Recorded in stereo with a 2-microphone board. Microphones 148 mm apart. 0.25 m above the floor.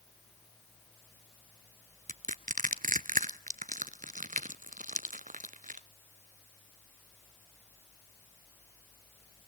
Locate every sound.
2.1 s crushing: 60° right (ahead or behind), 0.7 m